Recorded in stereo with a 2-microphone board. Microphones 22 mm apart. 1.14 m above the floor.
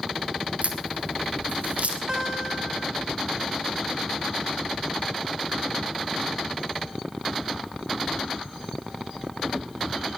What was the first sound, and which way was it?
A crack, 80° right.